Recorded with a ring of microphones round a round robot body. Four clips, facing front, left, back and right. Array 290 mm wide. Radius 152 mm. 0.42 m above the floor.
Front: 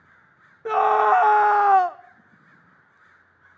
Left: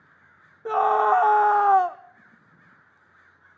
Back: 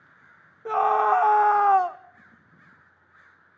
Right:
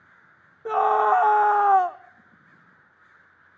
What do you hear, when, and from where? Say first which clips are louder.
0.7 s a scream: even, front 3 dB; 5° right, 0.7 m